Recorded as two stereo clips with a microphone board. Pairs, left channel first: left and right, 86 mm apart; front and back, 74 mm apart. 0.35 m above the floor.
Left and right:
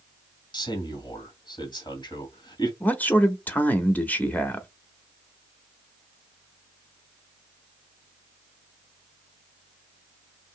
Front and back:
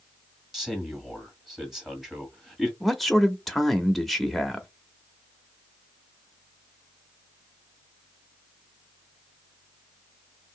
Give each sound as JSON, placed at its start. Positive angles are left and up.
{"t": 0.5, "sound": "a man speaking", "azimuth_deg": 95, "distance_m": 1.7}
{"t": 2.8, "sound": "a man speaking", "azimuth_deg": 90, "distance_m": 0.8}